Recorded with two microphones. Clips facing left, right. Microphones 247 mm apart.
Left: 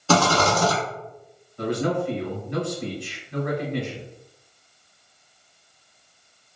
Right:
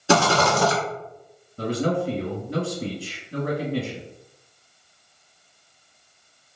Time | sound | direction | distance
0.1 | a rattle | 15° right (ahead or behind) | 0.9 m
1.6 | a man speaking | 35° right (ahead or behind) | 1.1 m